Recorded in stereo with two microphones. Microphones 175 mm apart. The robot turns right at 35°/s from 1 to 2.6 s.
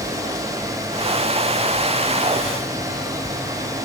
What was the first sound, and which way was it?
Only background noise.